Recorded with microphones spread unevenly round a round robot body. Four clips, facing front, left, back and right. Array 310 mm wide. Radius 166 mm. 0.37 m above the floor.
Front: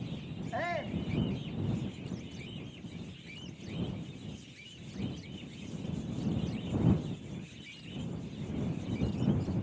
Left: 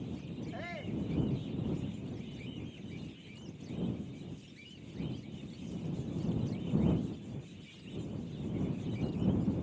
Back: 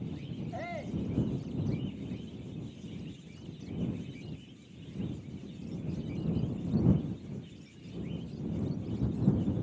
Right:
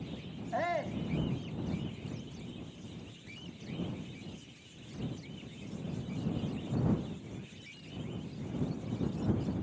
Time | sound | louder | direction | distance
0.5 | a shout | right 10 dB, front 5 dB | 60° right | ?